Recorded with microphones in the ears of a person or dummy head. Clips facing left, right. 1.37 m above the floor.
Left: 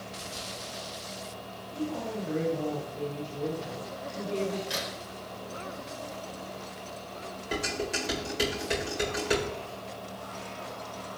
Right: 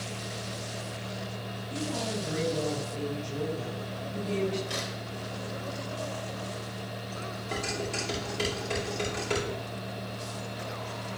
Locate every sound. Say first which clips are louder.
1.7 s a woman speaking: even; 70° right (ahead or behind), 4 m
4.7 s a crack: even; 5° left (ahead or behind), 3.5 m
7.5 s dishes clattering: left 2 dB; 15° left (ahead or behind), 4.5 m